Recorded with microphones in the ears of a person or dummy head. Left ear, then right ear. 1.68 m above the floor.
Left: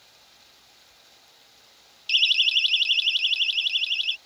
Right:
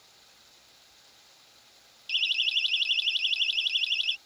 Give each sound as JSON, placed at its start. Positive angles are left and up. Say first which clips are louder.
{"t": 2.1, "sound": "a siren", "louder": "left 6 dB", "side_deg": 15}